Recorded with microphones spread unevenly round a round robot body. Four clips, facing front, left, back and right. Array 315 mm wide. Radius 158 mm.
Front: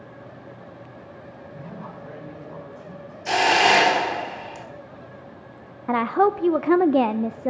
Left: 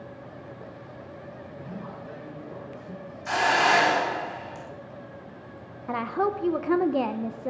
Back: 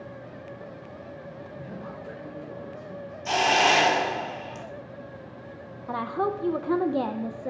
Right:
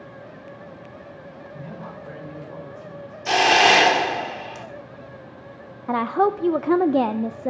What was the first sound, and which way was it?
A man speaking, 40° right.